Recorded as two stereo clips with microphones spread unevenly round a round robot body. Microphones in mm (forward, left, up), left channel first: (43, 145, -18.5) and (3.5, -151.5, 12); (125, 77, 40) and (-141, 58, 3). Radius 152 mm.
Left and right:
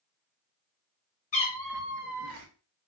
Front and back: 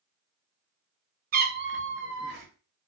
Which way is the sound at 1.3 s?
140° left.